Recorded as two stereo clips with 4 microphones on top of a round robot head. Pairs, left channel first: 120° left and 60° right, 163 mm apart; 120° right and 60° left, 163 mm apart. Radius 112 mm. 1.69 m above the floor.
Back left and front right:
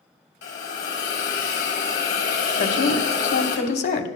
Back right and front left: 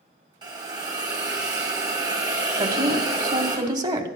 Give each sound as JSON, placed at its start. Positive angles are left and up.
{"t": 0.4, "sound": "a hiss", "azimuth_deg": 120, "distance_m": 2.0}
{"t": 2.6, "sound": "a woman speaking", "azimuth_deg": 120, "distance_m": 1.5}